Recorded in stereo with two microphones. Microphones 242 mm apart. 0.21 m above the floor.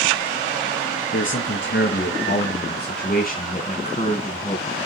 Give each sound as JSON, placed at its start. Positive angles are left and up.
{"t": 1.1, "sound": "a man speaking", "side_deg": 55, "distance_m": 3.0}